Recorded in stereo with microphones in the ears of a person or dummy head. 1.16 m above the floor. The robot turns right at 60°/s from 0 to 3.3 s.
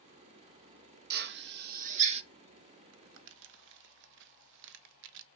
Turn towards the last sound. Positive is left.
turn(degrees=-60)  # may be behind; listen again after turning